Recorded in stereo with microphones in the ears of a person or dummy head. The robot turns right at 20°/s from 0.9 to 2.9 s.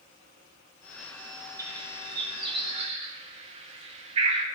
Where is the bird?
10° right (ahead or behind), 0.7 m; by 4.5 s 25° right (ahead or behind), 0.7 m.